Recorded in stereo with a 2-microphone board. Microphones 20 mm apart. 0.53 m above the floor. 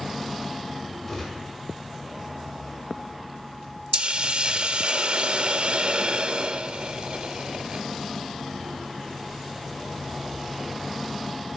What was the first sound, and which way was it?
A gunshot, 25° left (ahead or behind).